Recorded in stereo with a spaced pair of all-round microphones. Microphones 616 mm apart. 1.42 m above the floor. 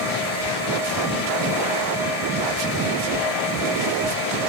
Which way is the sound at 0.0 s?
40° left (ahead or behind).